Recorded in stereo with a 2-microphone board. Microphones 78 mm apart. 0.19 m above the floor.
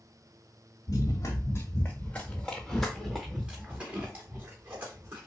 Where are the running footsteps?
45° left (ahead or behind), 1.3 m; by 5.3 s 30° right (ahead or behind), 2.5 m.